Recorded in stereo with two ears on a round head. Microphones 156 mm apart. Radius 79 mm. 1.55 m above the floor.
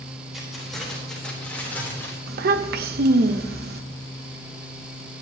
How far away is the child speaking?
About 1.1 m.